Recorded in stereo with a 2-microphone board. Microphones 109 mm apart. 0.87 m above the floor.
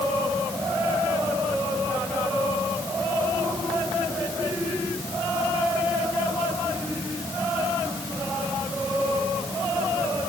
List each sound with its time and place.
Only background noise.